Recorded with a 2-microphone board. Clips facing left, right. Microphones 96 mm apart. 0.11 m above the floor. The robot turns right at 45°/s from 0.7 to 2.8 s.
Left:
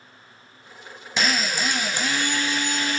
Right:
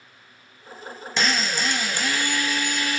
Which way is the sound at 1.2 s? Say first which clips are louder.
Even; centre (ahead or behind).